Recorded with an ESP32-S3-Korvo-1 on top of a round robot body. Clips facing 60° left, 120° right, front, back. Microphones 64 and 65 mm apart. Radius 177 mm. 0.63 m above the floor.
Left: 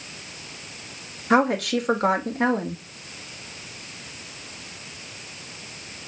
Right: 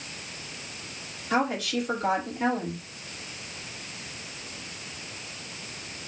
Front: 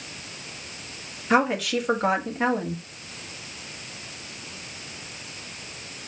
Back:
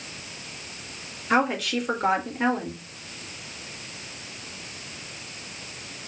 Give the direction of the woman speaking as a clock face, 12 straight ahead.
9 o'clock.